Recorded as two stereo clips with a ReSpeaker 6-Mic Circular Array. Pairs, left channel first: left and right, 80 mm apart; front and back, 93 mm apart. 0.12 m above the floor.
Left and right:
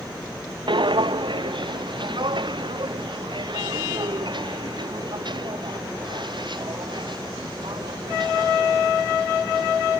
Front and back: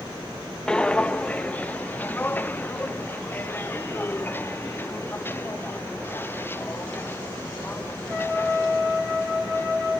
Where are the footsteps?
80° right; by 9.9 s 65° right.